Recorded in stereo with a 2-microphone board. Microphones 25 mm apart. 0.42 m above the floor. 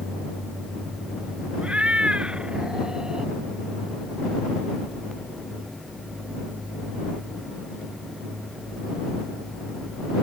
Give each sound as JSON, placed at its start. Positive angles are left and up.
{"t": 1.6, "sound": "a cat meowing", "side_deg": -60}